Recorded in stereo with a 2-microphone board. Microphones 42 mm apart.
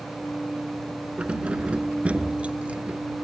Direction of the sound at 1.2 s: 30° right (ahead or behind).